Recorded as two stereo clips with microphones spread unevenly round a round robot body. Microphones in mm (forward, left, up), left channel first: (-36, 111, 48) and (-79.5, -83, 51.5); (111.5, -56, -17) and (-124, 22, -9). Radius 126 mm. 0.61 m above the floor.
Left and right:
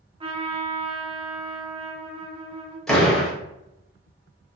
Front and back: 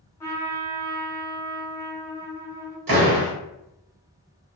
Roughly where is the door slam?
Behind.